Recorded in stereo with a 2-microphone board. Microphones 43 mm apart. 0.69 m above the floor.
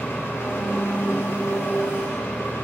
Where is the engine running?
80° left, 2.5 m.